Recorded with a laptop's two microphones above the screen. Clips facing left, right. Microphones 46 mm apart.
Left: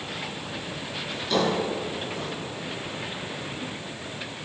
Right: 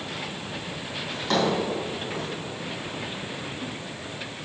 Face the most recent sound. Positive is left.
turn(degrees=-80)